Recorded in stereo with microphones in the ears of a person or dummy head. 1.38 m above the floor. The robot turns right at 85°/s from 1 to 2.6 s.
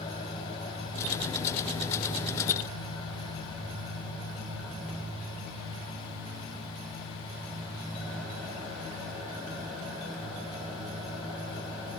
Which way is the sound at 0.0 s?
45° left.